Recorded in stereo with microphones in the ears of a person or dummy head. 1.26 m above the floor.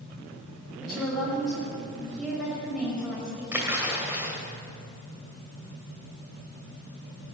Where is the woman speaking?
Centre (ahead or behind), 6 m.